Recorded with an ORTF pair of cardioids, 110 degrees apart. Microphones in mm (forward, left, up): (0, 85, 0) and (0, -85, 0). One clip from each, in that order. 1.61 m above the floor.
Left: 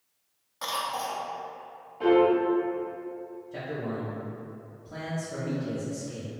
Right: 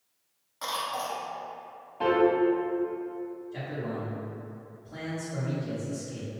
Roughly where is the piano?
Ahead right.